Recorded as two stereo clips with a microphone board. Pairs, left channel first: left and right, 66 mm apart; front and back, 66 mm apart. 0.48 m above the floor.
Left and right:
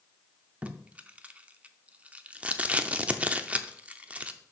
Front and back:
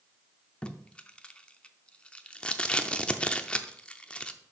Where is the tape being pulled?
55° right, 0.5 m.